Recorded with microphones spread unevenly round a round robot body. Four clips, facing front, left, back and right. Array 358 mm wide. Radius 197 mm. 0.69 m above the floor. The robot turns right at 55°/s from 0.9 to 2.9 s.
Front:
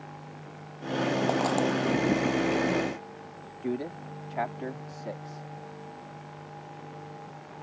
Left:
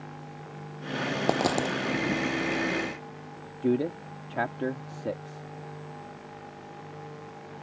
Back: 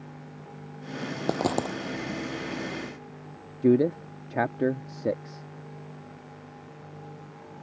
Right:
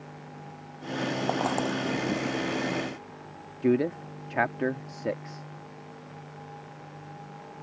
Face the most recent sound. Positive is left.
turn(degrees=-170)